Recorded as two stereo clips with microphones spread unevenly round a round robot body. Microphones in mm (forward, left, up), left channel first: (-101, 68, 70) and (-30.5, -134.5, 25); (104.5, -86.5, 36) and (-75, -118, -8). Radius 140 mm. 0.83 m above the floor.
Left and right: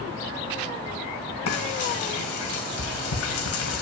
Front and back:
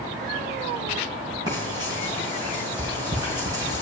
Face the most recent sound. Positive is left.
turn(degrees=110)